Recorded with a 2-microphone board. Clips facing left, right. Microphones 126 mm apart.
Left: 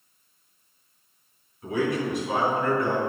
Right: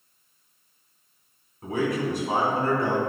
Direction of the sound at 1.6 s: 50° right (ahead or behind).